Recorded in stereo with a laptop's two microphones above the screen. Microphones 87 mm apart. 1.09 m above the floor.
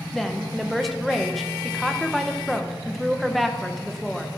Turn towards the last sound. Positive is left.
turn(degrees=0)  # may be behind; listen again after turning